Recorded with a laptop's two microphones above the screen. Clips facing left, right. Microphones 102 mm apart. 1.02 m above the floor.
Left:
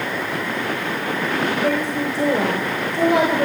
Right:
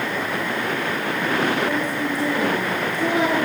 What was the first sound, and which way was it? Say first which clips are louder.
A woman speaking: left 2 dB; 65° left (ahead or behind).